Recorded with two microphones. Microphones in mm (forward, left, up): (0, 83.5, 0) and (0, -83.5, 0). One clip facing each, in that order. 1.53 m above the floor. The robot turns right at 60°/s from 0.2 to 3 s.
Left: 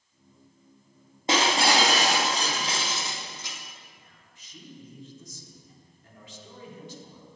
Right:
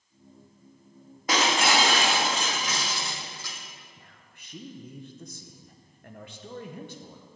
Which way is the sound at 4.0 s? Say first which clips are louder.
Right 2 dB; 65° right (ahead or behind).